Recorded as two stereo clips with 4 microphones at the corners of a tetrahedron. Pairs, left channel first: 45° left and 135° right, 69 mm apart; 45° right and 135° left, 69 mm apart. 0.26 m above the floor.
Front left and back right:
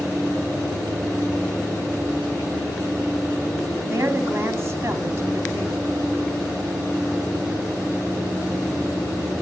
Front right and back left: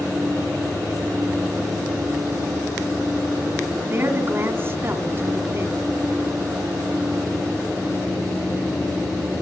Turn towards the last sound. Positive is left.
turn(degrees=-175)